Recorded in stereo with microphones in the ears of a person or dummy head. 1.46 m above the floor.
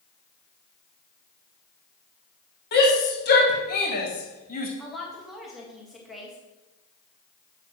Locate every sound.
2.7 s a shout: 55° left (ahead or behind), 2.5 m; by 4.7 s 45° left (ahead or behind), 1.4 m
4.8 s a woman speaking: centre (ahead or behind), 2 m